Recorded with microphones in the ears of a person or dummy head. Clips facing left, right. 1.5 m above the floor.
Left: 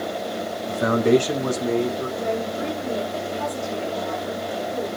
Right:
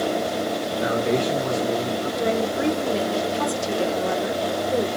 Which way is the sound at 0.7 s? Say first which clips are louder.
Left 6 dB; 60° left (ahead or behind).